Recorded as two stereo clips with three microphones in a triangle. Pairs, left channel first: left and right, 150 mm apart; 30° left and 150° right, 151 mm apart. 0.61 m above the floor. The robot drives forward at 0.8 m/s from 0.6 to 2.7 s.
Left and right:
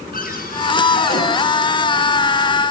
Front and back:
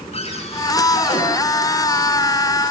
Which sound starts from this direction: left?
A cupboard door, at 0.1 s.